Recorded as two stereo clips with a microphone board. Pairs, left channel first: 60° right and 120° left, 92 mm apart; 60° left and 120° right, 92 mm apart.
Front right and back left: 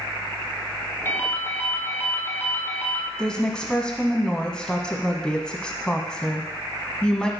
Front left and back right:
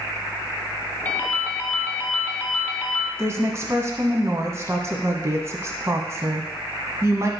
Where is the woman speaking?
135° right, 1.3 m.